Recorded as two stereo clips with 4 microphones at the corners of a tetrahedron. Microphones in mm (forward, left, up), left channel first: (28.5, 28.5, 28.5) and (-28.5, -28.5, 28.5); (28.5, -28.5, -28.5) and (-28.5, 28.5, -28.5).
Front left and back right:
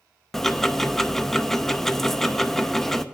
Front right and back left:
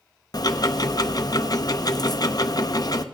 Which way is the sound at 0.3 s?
40° right.